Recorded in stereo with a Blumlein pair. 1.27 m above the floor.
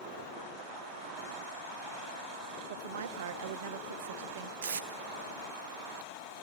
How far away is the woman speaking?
About 0.5 m.